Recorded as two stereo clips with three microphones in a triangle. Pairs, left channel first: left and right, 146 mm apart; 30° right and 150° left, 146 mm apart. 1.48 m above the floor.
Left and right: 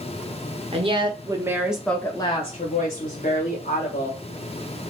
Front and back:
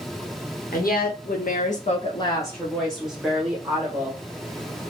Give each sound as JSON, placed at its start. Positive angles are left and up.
{"t": 0.7, "sound": "a woman speaking", "azimuth_deg": -40, "distance_m": 0.9}